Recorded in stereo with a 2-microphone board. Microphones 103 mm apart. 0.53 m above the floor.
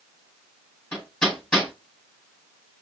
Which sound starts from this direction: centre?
Hammering, at 0.9 s.